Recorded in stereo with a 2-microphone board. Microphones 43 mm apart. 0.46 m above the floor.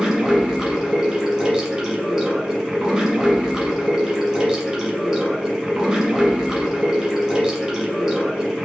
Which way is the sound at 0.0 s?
15° right (ahead or behind).